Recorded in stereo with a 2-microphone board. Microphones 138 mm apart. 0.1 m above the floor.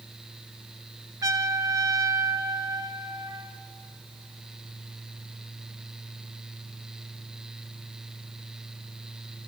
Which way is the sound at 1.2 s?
25° right (ahead or behind).